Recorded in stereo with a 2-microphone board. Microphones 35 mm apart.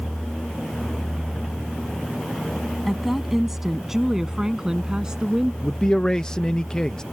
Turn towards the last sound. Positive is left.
turn(degrees=20)  # may be behind; listen again after turning